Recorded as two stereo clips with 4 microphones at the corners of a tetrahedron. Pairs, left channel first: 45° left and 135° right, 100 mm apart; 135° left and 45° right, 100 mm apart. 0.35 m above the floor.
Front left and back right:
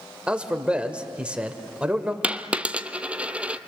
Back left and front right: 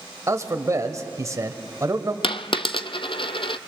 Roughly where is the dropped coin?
Behind left.